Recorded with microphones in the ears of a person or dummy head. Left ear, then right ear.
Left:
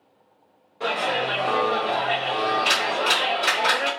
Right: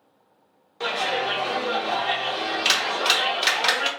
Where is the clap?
40° right (ahead or behind), 1.0 m.